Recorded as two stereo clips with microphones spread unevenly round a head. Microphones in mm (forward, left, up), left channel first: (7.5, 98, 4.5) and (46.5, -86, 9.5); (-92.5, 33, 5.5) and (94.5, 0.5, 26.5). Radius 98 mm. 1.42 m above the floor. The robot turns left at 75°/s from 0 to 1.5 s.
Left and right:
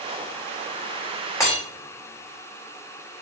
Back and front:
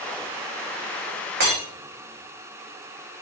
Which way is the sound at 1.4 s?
30° left.